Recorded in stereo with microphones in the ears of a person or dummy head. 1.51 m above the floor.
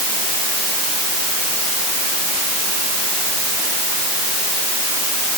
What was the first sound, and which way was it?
Only background noise.